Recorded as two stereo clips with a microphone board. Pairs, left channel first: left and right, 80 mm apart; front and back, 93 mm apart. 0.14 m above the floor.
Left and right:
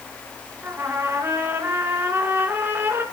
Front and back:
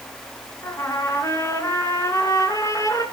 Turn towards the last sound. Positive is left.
turn(degrees=-40)